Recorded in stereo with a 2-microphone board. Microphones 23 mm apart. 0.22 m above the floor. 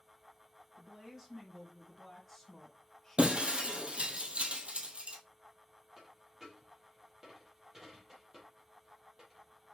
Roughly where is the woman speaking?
Centre.